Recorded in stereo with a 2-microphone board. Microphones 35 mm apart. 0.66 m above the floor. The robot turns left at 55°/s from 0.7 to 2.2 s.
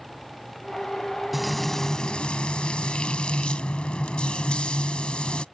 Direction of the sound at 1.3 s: 175° right.